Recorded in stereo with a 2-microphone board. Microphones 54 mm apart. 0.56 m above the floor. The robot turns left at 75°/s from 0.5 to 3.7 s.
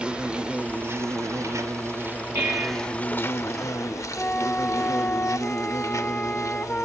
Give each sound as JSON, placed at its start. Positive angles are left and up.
{"t": 0.0, "sound": "an insect", "azimuth_deg": -20, "distance_m": 1.0}
{"t": 2.4, "sound": "dishes clattering", "azimuth_deg": -40, "distance_m": 9.5}
{"t": 4.2, "sound": "a flute", "side_deg": 30, "distance_m": 1.0}